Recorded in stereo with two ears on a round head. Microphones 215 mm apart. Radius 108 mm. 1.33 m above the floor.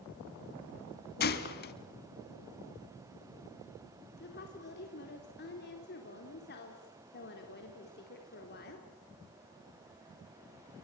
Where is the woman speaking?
45° left (ahead or behind), 3.5 m.